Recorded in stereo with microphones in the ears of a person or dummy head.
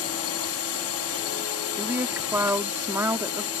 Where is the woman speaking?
15° right (ahead or behind).